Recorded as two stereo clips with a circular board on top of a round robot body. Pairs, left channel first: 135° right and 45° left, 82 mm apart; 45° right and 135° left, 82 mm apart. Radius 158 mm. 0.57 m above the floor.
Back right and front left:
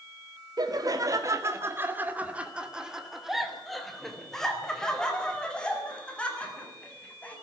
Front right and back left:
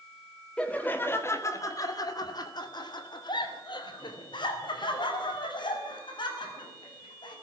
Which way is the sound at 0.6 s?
30° left.